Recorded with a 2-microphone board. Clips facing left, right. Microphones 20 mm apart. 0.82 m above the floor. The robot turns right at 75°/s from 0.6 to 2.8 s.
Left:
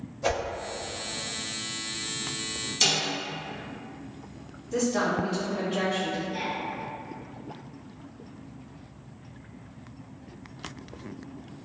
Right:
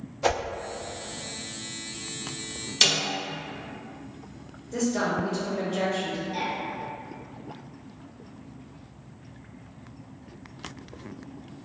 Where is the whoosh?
70° right (ahead or behind), 0.7 m.